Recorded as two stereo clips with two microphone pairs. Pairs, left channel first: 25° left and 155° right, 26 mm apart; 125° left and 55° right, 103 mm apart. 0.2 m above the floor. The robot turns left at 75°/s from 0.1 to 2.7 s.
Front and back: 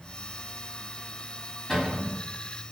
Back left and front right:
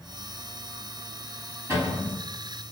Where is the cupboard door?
40° right, 1.3 m; by 2.2 s 80° right, 1.3 m.